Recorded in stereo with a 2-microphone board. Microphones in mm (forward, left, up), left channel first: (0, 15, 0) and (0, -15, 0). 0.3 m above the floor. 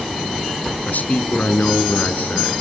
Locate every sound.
0.9 s a man speaking: 65° left (ahead or behind), 3 m